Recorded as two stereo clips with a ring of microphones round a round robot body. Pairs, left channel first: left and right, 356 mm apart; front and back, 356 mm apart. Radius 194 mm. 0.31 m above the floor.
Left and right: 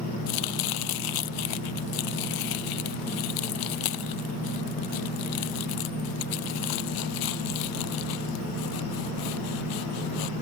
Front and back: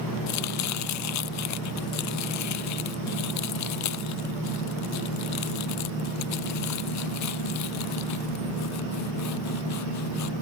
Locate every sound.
0.3 s chopping: 50° left